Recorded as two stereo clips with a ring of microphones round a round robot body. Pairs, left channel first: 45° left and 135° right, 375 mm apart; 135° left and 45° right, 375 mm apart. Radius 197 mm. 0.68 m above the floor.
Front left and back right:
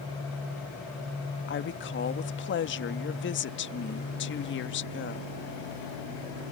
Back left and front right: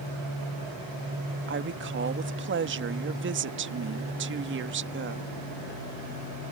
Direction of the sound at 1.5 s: Straight ahead.